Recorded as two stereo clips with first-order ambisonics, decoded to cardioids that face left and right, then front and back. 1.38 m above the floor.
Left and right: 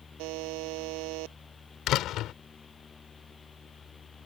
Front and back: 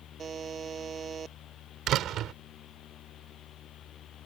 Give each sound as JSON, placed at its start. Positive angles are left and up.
{"t": 0.2, "sound": "a buzzer", "azimuth_deg": -115}
{"t": 1.9, "sound": "a door slam", "azimuth_deg": 135}